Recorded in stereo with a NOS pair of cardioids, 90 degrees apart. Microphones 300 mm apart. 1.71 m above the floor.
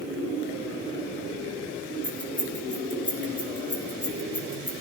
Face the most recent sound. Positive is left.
turn(degrees=15)